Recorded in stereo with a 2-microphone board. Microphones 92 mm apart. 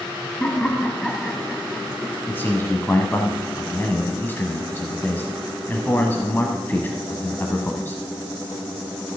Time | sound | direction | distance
0.4 | laughter | 10° left (ahead or behind) | 1.1 m
2.3 | a man speaking | 25° left (ahead or behind) | 1.0 m